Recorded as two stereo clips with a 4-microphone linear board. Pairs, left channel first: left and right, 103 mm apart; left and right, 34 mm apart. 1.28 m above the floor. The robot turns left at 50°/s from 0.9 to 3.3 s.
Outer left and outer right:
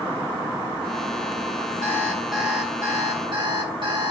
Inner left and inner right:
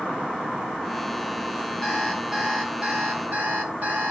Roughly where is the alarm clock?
Ahead left.